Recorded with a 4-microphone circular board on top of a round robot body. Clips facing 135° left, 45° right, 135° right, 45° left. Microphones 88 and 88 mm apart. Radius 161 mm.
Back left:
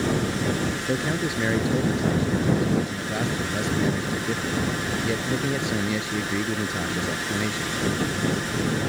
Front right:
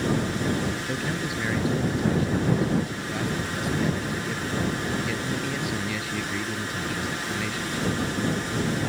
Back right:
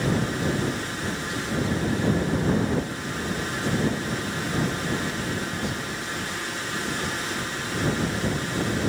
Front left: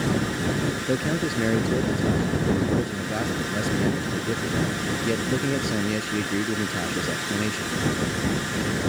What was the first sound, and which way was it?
A man speaking, 70° left.